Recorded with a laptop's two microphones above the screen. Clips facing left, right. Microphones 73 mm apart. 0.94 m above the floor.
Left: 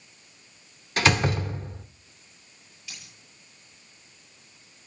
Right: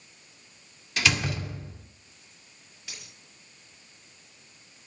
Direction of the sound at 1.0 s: 40° left (ahead or behind).